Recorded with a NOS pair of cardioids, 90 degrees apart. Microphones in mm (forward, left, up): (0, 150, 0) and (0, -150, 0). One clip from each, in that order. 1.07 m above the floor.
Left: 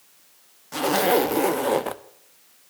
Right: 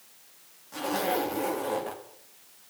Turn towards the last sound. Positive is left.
turn(degrees=60)